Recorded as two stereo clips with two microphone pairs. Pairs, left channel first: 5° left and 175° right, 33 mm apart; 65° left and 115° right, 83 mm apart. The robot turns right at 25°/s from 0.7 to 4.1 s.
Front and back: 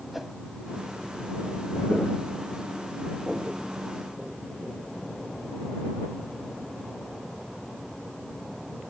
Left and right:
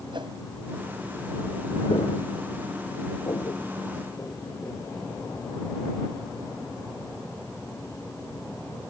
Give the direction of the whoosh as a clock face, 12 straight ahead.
3 o'clock.